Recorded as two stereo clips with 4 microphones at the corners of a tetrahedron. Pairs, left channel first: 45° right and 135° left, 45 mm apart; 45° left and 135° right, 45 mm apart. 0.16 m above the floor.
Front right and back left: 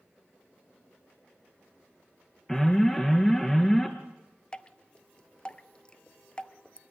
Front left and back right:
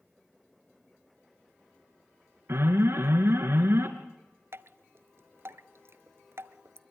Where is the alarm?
125° right, 3 m.